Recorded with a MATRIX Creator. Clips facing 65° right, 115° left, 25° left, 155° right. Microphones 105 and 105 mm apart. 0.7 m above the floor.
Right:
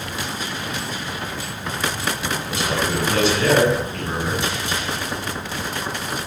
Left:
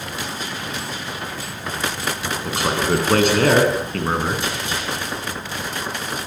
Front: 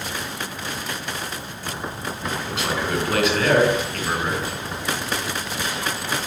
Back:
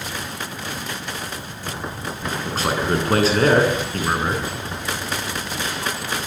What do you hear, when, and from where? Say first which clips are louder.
2.4 s a man speaking: left 4 dB, back 5 dB; 150° left, 9 m; by 4.5 s 140° left, 8 m